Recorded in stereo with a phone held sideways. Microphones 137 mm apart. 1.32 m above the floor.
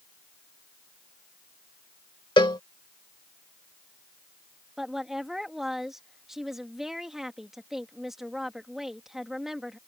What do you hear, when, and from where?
2.4 s a cowbell: 35° left (ahead or behind)
4.8 s a woman speaking: centre (ahead or behind)